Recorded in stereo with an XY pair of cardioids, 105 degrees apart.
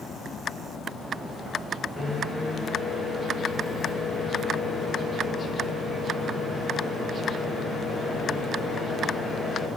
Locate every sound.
2.0 s a microwave: 25° left, 0.9 m